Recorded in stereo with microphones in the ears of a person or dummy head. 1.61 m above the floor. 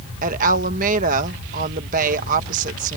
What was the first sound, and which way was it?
A woman speaking, 45° right (ahead or behind).